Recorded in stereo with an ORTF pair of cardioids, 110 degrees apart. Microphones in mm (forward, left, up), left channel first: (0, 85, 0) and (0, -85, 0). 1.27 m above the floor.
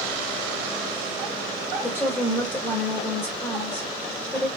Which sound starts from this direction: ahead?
A woman speaking, at 1.8 s.